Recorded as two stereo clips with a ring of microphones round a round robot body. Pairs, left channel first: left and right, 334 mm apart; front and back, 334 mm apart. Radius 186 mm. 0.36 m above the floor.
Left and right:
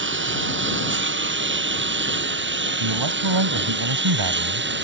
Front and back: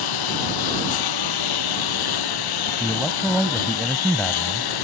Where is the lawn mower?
35° right; by 4.8 s 30° right.